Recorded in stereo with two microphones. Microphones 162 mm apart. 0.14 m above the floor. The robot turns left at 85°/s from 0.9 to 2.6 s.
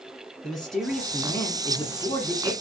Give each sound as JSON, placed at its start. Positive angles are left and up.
{"t": 0.4, "sound": "a man speaking", "side_deg": 5, "distance_m": 1.3}